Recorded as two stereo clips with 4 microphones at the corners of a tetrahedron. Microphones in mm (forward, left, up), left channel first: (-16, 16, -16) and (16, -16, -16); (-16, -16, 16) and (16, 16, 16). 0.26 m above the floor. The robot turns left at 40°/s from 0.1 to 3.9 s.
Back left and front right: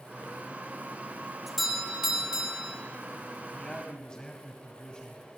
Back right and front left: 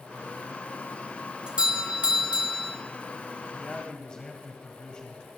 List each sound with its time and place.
1.5 s a doorbell: 45° left, 1.5 m; by 2.8 s 5° right, 1.5 m
3.5 s a man speaking: 165° right, 1.7 m; by 5.3 s straight behind, 1.7 m